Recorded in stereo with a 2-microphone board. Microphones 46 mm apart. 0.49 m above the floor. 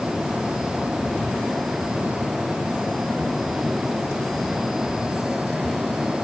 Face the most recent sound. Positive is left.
No sound to turn to.